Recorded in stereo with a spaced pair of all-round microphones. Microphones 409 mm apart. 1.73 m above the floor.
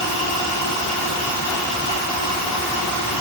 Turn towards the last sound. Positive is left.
No sound to turn to.